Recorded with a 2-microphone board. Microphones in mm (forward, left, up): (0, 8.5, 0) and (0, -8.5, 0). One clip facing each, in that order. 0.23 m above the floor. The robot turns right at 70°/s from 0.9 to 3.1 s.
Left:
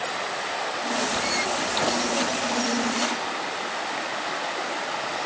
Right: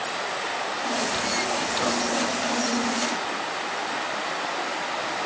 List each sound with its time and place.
Only background noise.